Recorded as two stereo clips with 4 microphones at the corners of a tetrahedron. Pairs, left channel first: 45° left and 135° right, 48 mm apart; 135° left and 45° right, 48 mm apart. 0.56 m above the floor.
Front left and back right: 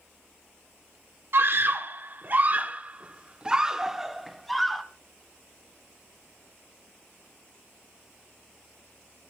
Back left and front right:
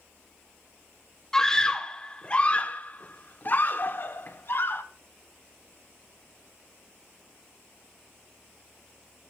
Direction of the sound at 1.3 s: 150° right.